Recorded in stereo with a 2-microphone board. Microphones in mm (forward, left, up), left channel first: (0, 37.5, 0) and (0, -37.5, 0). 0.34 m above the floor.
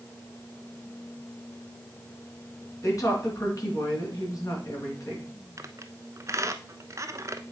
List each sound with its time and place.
2.8 s a woman speaking: 45° left (ahead or behind), 3 m
5.6 s a squeak: 45° right (ahead or behind), 0.6 m